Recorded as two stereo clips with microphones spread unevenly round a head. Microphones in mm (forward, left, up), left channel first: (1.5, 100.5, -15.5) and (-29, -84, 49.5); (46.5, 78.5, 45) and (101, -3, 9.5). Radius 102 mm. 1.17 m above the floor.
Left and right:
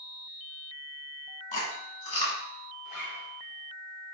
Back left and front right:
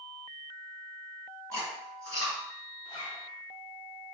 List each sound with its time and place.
1.5 s chewing: 140° left, 1.3 m
2.9 s a zipper: 110° left, 1.6 m